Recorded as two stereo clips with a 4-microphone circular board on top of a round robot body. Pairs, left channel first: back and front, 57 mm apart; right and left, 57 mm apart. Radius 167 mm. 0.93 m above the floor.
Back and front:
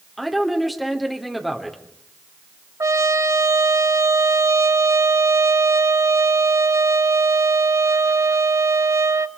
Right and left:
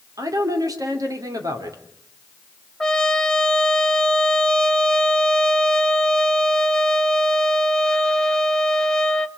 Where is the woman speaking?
90° left, 3 m.